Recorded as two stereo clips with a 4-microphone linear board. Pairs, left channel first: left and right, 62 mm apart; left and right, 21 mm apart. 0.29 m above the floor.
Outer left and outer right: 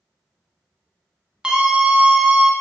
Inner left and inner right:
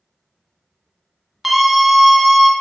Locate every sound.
1.4 s a scream: 15° right (ahead or behind), 2 m